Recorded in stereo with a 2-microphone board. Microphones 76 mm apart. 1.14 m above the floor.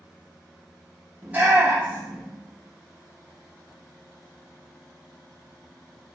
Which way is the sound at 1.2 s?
20° right (ahead or behind).